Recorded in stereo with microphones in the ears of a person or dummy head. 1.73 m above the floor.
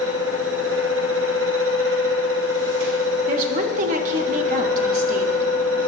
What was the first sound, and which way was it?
A fan, 70° right (ahead or behind).